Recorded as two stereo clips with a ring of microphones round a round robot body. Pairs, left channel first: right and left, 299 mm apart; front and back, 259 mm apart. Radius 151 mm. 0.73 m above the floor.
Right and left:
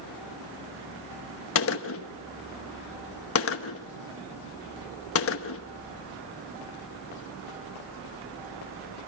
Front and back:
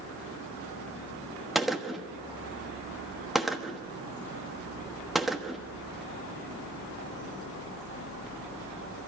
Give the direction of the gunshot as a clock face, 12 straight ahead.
3 o'clock.